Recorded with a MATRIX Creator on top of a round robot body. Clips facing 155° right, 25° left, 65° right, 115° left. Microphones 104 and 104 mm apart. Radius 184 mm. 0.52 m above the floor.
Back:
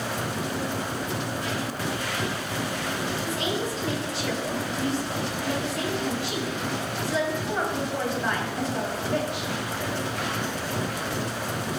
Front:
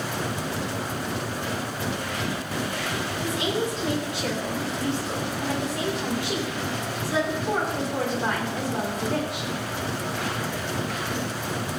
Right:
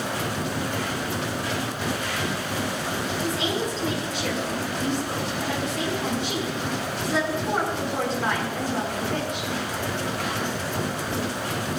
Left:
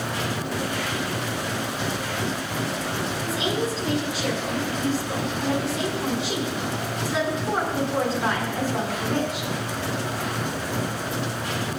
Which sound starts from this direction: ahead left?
A woman speaking, at 3.2 s.